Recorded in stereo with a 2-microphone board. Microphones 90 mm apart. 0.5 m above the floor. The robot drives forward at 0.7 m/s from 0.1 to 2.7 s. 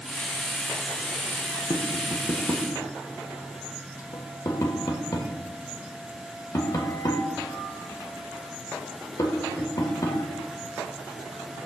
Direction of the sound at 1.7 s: 50° left (ahead or behind).